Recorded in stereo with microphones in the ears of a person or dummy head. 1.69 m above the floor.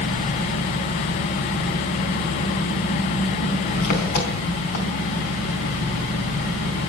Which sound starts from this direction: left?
An engine running, at 0.0 s.